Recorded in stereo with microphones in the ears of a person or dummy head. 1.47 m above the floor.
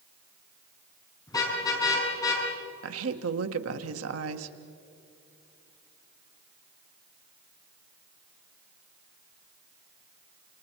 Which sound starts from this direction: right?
A woman speaking, at 2.8 s.